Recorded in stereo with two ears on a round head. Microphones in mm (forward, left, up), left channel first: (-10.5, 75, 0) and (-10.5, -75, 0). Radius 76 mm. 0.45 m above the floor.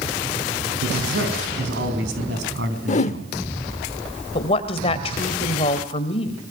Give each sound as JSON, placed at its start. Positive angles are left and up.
{"t": 0.8, "sound": "a man speaking", "side_deg": -70, "distance_m": 4.5}
{"t": 2.9, "sound": "a whoosh", "side_deg": 40, "distance_m": 0.9}
{"t": 4.3, "sound": "a woman speaking", "side_deg": 35, "distance_m": 2.5}